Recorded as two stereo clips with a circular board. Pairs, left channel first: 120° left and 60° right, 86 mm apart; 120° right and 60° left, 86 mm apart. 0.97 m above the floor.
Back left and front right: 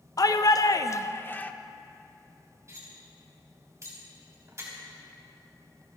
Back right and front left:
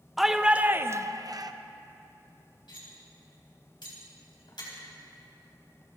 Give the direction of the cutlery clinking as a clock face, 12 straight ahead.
4 o'clock.